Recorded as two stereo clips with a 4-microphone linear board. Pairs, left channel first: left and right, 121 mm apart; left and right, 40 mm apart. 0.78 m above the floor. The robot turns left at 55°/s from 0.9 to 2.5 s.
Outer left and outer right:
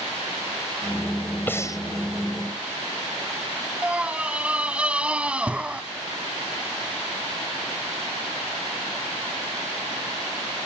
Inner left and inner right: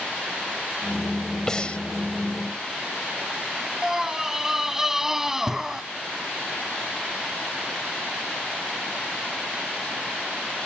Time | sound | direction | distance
1.5 | breathing | 15° left (ahead or behind) | ?
3.8 | a scream | 10° right (ahead or behind) | ?